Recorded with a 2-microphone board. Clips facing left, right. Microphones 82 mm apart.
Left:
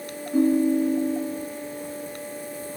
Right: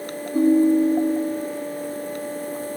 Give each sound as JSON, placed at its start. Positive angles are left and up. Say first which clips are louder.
{"t": 0.3, "sound": "a ringtone", "louder": "right 4 dB", "side_deg": 55, "distance_m": 3.0}